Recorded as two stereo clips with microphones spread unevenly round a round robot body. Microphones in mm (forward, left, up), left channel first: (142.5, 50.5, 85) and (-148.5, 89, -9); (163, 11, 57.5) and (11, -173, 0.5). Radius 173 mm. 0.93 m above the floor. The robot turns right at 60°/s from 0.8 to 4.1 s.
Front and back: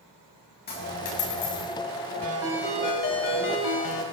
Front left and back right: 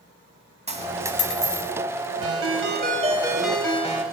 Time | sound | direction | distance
0.7 | a dropped coin | 60° right | 1.9 m
2.2 | a ringtone | 110° right | 2 m